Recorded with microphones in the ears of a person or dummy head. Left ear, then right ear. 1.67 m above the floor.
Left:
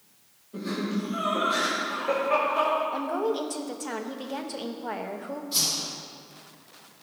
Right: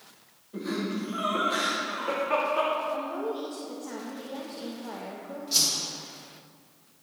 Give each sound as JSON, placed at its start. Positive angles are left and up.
{"t": 0.5, "sound": "laughter", "side_deg": -5, "distance_m": 2.5}
{"t": 2.9, "sound": "a woman speaking", "side_deg": 40, "distance_m": 0.6}
{"t": 5.5, "sound": "a whoosh", "side_deg": -45, "distance_m": 3.0}